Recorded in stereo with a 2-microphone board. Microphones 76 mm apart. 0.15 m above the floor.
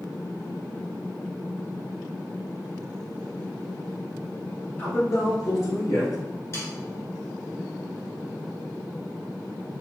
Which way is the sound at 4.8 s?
30° left (ahead or behind).